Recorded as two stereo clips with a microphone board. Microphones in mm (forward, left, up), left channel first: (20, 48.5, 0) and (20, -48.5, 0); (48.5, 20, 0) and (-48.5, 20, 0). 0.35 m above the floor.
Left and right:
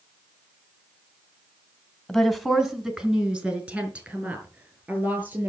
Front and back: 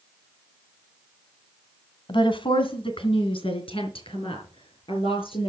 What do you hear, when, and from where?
2.1 s a woman speaking: 5° left, 2.0 m; by 5.5 s 20° right, 6.5 m